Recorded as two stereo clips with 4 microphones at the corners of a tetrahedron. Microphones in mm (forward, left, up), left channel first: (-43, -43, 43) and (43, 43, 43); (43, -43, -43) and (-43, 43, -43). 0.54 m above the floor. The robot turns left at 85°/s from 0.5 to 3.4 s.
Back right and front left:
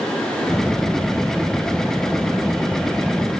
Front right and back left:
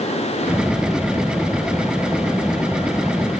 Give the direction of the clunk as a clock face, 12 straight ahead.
I don't hear a clunk.